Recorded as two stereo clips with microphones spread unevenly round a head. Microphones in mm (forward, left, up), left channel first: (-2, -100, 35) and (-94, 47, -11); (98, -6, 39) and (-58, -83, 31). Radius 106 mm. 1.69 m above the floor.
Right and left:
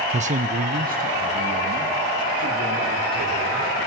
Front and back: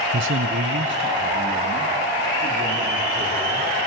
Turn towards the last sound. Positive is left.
turn(degrees=160)